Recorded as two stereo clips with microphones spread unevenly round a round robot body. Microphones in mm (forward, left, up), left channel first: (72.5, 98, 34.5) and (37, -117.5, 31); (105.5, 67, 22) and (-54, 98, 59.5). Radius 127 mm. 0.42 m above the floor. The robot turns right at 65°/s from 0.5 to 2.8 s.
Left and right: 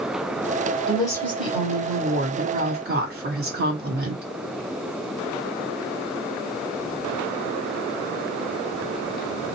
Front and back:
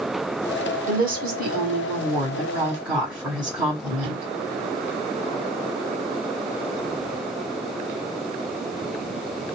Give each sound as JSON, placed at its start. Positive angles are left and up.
{"t": 0.9, "sound": "a woman speaking", "azimuth_deg": 140, "distance_m": 1.8}